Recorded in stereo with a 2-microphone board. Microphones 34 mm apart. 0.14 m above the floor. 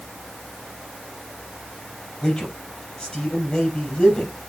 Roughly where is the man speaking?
Left.